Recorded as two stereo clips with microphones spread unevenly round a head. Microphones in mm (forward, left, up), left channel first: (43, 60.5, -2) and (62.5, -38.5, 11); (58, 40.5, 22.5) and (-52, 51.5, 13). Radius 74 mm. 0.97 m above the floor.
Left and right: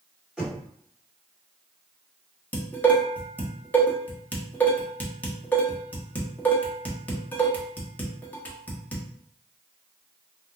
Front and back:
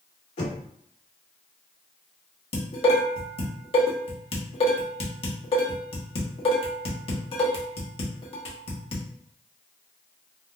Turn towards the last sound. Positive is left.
turn(degrees=25)